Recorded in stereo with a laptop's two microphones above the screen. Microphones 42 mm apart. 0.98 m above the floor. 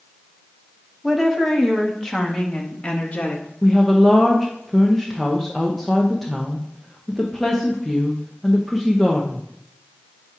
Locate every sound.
1.0 s a woman speaking: 10° right (ahead or behind), 2.5 m; by 3.5 s 40° left (ahead or behind), 1.6 m
3.6 s a woman speaking: 10° left (ahead or behind), 0.8 m